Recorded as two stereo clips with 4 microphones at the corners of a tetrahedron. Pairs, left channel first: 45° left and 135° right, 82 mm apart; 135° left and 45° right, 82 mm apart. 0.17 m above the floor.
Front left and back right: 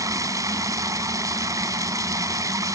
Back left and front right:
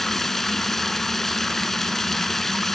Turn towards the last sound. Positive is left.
turn(degrees=-140)